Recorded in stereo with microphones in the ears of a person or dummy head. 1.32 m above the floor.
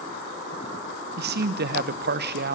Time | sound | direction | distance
1.2 | a man speaking | 50° right (ahead or behind) | 0.9 m